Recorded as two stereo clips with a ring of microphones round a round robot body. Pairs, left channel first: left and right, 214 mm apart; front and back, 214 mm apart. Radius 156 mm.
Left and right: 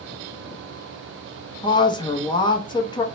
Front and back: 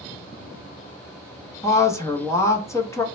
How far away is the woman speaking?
About 0.6 m.